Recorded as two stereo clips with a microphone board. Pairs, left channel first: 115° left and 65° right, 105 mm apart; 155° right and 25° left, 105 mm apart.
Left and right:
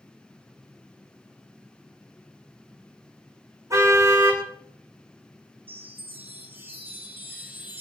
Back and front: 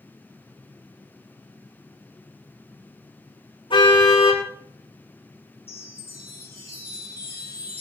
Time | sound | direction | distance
3.7 | a car horn | 125° right | 8.5 m
5.7 | a chime | 135° right | 4.5 m